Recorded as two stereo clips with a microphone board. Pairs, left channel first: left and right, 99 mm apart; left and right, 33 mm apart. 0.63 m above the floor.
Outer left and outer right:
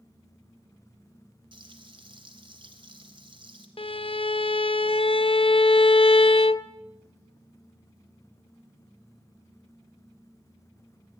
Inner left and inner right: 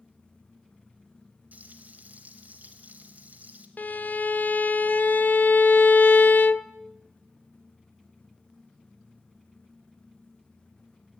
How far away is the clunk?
No clunk in this recording.